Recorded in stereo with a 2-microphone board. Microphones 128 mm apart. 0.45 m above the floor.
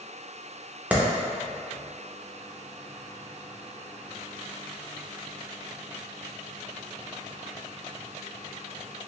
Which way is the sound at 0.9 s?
10° right (ahead or behind).